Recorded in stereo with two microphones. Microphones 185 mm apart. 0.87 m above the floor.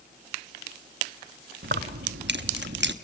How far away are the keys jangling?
About 1.0 m.